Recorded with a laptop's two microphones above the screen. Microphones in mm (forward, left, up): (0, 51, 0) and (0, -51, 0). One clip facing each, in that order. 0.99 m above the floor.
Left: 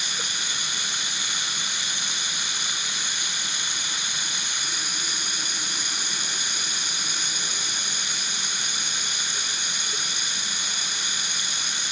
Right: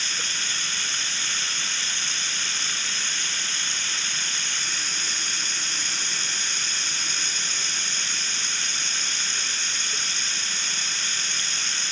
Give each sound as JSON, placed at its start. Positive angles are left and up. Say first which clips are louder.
{"t": 0.0, "sound": "running water", "louder": "even", "side_deg": 15}